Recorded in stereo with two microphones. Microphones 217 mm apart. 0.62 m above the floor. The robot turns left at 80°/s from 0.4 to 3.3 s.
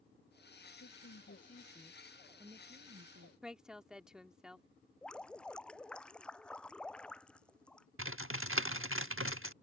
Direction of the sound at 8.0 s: 75° right (ahead or behind).